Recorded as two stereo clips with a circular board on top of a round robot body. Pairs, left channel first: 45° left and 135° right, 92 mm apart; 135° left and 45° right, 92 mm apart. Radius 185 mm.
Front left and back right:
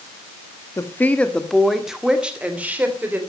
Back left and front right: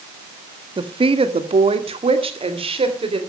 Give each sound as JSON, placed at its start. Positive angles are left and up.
{"t": 0.8, "sound": "a woman speaking", "azimuth_deg": -15, "distance_m": 1.5}